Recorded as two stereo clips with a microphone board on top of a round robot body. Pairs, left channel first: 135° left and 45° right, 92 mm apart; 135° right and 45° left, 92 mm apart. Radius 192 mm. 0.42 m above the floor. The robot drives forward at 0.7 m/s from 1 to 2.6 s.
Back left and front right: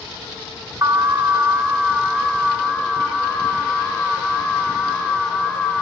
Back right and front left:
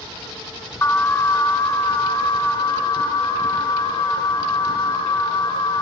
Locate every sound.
0.8 s an alarm: 80° right, 1.6 m; by 5.8 s 140° right, 1.9 m